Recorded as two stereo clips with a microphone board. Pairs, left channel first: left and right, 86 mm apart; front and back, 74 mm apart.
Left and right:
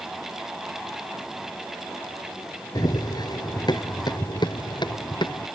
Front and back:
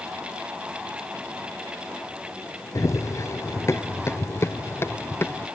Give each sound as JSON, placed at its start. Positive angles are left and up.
{"t": 2.8, "sound": "running footsteps", "azimuth_deg": 50}